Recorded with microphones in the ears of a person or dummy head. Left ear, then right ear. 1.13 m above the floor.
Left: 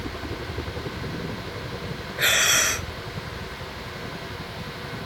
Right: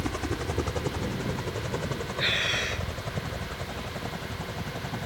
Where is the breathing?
50° left (ahead or behind).